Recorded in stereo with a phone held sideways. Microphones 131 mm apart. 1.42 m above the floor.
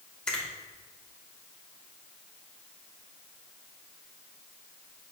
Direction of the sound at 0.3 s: 5° left (ahead or behind).